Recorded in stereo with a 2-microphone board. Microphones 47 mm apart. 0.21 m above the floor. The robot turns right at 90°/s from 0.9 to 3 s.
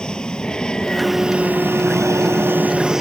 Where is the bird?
I don't hear a bird.